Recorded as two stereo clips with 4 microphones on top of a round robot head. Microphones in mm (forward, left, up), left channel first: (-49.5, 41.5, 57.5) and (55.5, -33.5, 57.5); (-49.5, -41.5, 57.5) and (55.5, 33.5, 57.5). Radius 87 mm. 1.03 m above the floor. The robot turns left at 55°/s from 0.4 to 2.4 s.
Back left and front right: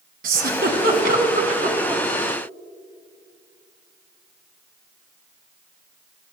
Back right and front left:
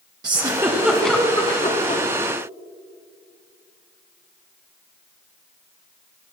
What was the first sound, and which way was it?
A giggle, 20° right.